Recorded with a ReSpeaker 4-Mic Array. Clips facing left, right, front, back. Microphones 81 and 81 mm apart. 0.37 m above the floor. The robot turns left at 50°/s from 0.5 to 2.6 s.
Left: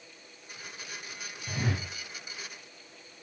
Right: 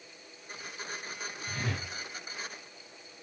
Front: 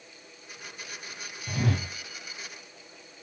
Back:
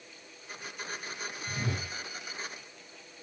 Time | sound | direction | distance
1.5 | a whoosh | 20° left | 0.8 m